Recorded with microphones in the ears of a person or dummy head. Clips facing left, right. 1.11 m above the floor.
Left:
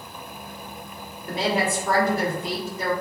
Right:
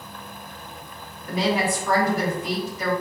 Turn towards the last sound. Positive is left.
turn(degrees=25)  # may be behind; listen again after turning